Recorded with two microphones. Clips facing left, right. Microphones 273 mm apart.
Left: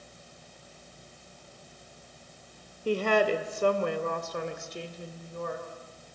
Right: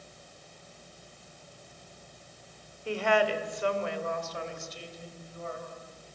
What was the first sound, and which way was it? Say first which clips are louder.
A woman speaking: left 3 dB; 40° left (ahead or behind).